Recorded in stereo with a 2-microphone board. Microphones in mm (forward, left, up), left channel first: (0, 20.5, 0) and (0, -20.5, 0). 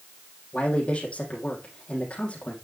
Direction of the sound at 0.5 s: 30° left (ahead or behind).